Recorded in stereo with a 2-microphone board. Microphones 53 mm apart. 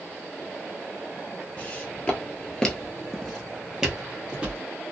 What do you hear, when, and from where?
1.6 s footsteps: 25° left (ahead or behind), 1.2 m; by 4.6 s 20° right (ahead or behind), 1.5 m